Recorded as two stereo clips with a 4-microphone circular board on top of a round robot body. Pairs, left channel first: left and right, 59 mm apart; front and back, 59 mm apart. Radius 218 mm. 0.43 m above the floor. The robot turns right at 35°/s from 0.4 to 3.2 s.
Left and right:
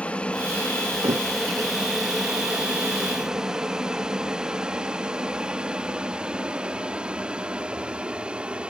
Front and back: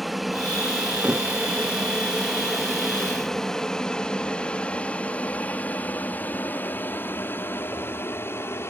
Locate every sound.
0.0 s an aircraft: 90° left; by 8.7 s 25° right
1.0 s a thud: 100° right; by 1.3 s 95° right